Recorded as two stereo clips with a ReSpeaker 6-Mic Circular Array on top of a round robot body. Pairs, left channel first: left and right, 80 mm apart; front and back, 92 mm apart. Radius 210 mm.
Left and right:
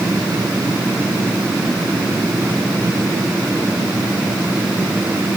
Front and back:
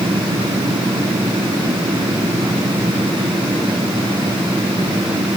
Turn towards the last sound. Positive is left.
No sound to turn to.